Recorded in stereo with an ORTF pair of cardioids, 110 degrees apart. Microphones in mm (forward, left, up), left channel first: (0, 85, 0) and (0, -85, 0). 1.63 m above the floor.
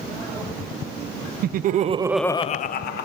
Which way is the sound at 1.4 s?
60° right.